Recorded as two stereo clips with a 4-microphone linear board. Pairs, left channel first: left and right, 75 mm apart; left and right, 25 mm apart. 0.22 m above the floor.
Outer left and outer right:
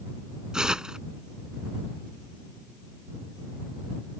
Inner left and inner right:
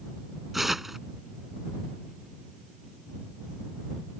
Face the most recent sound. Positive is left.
turn(degrees=-10)  # may be behind; listen again after turning